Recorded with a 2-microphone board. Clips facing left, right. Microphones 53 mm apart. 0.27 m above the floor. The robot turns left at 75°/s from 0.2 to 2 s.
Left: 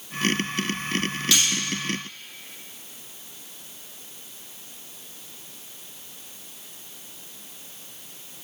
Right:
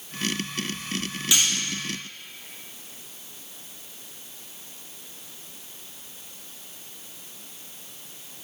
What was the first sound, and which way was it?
Cutlery clinking, 20° right (ahead or behind).